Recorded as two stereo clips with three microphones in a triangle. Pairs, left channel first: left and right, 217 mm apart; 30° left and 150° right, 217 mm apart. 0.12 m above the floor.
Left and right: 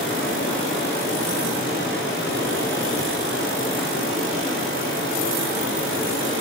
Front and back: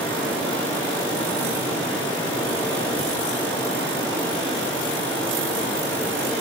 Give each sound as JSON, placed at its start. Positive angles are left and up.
{"t": 0.0, "sound": "running water", "azimuth_deg": 115, "distance_m": 6.5}